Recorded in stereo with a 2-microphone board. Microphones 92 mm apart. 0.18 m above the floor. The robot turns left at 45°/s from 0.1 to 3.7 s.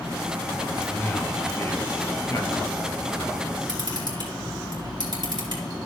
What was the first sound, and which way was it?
A man speaking, 150° left.